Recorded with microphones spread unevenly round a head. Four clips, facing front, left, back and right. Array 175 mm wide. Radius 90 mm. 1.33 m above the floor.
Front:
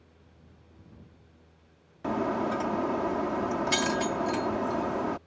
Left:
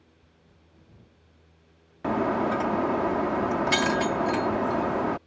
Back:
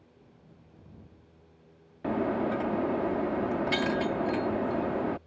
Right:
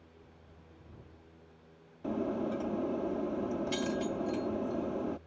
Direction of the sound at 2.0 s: 95° left.